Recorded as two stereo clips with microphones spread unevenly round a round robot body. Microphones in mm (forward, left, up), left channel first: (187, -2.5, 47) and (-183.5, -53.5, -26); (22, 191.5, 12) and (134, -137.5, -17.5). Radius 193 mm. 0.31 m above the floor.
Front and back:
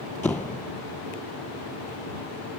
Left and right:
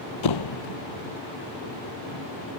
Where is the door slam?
95° left.